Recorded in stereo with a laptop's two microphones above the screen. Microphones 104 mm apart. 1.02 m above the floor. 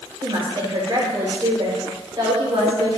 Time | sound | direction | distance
0.2 | a woman speaking | 40° right (ahead or behind) | 4.5 m